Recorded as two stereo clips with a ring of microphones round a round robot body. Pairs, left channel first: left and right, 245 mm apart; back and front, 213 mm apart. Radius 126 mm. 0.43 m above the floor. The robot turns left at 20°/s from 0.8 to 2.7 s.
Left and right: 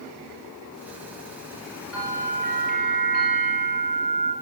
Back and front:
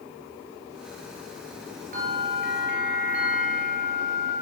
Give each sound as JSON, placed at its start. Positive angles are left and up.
{"t": 1.9, "sound": "a bell", "azimuth_deg": 50, "distance_m": 3.5}